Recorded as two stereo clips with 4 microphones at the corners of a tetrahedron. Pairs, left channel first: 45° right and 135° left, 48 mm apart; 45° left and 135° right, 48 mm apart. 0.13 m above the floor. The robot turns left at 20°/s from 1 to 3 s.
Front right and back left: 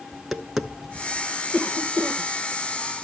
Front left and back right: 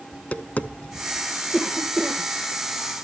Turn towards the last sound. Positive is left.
turn(degrees=-85)